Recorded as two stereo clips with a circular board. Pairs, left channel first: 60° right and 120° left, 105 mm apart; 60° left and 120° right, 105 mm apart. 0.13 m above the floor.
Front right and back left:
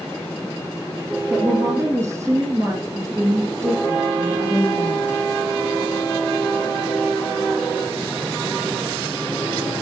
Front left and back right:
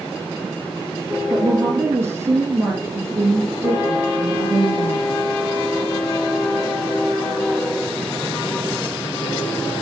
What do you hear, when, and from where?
1.3 s a woman speaking: 175° left, 2.5 m